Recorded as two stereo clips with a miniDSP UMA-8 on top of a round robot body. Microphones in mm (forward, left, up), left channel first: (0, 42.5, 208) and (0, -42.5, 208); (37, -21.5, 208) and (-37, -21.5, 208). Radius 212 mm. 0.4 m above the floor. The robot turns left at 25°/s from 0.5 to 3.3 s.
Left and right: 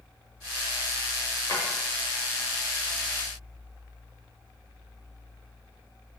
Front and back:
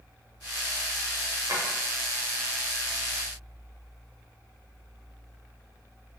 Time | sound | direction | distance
1.5 | a drawer | 135° left | 0.9 m